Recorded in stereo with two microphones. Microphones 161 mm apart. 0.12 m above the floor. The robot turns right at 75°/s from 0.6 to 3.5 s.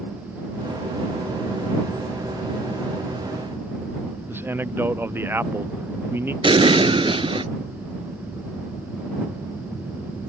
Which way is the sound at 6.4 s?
35° right (ahead or behind).